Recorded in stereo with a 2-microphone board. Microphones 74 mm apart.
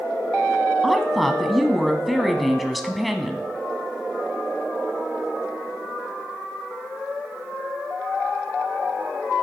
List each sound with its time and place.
0.8 s a woman speaking: centre (ahead or behind), 1.1 m